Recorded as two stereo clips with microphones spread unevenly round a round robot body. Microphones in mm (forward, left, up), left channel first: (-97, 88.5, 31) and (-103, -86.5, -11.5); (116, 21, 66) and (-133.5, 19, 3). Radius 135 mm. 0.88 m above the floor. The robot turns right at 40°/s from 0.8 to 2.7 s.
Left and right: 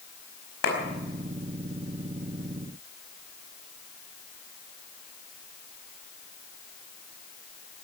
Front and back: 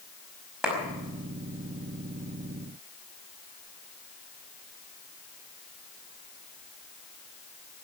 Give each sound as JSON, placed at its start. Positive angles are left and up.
{"t": 0.6, "sound": "a clap", "azimuth_deg": 95, "distance_m": 5.0}